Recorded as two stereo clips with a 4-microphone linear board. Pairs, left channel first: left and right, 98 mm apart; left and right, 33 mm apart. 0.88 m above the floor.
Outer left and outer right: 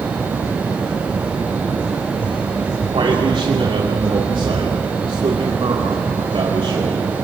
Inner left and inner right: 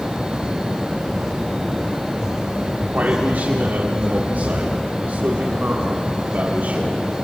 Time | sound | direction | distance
2.9 | a man speaking | 65° right (ahead or behind) | 2.5 m